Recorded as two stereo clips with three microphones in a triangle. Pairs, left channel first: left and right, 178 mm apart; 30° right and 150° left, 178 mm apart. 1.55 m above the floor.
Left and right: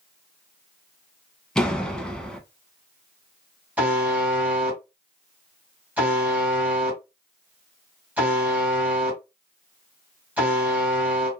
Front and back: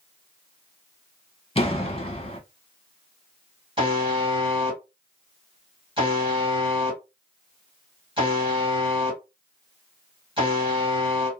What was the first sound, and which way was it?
A door slam, 5° left.